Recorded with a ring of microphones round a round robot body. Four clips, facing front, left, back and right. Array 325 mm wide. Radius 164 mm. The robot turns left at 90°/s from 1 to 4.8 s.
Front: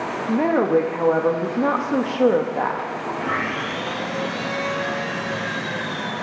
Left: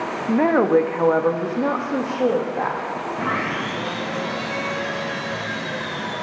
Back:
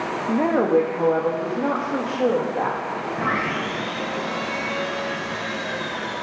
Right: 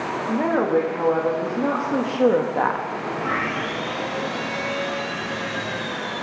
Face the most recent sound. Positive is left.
turn(degrees=10)